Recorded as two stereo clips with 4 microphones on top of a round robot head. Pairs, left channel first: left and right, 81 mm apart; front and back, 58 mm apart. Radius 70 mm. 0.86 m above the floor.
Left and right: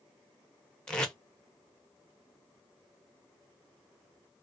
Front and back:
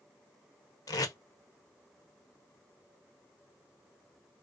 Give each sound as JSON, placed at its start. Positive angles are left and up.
{"t": 0.9, "sound": "tape being pulled", "azimuth_deg": 10, "distance_m": 0.7}